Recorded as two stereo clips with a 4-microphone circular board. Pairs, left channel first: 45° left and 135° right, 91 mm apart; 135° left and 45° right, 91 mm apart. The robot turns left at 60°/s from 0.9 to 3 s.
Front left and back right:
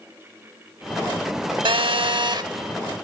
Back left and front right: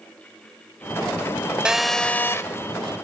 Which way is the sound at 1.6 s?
125° right.